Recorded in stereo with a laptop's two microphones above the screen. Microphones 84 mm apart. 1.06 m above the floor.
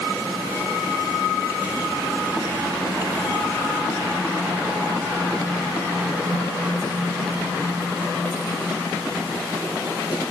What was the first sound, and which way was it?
Only background noise.